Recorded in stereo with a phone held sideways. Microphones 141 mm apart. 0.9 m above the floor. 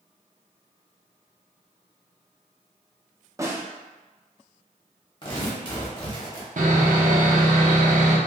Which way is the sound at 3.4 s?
20° right (ahead or behind).